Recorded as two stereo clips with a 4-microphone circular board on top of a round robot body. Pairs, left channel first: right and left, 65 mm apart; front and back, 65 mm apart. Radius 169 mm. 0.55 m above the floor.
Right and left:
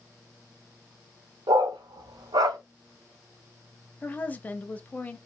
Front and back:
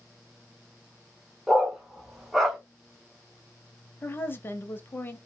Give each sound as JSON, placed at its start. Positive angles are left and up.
{"t": 1.5, "sound": "a dog barking", "azimuth_deg": 90, "distance_m": 0.7}
{"t": 4.0, "sound": "a woman speaking", "azimuth_deg": -35, "distance_m": 0.8}